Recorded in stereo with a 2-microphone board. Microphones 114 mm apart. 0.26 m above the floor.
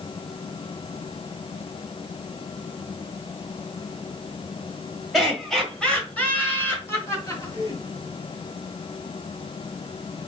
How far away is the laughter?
About 1.5 m.